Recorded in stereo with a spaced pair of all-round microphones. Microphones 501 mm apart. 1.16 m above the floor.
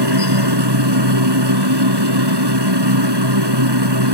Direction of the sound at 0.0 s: 55° right (ahead or behind).